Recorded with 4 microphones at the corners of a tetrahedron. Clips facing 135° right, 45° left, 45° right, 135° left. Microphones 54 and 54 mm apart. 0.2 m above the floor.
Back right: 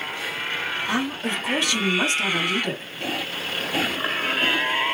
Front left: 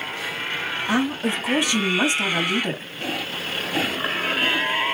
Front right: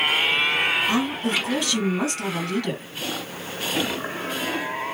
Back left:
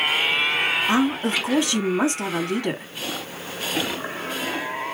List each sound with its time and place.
0.9 s a woman speaking: 100° left, 1.0 m